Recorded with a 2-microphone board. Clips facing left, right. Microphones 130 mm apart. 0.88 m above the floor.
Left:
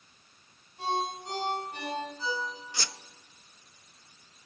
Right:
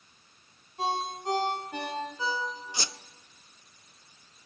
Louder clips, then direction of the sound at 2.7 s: Right 2 dB; 20° right (ahead or behind).